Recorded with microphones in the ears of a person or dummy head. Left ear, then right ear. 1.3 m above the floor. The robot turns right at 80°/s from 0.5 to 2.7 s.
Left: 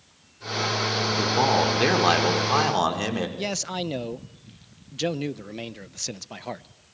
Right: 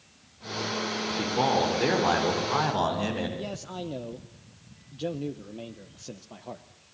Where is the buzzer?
I don't hear a buzzer.